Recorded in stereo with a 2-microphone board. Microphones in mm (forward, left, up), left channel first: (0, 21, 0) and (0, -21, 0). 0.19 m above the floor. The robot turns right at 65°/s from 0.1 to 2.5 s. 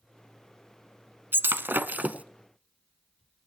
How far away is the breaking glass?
About 0.6 m.